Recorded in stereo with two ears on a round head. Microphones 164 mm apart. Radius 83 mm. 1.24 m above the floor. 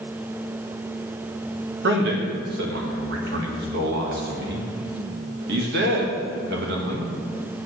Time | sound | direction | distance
1.8 | a man speaking | 65° right (ahead or behind) | 1.6 m